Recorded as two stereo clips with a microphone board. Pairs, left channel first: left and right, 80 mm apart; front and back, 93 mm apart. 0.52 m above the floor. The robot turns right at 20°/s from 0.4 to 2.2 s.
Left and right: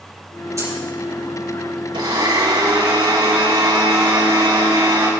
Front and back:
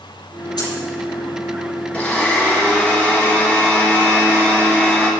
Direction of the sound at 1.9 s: 75° right.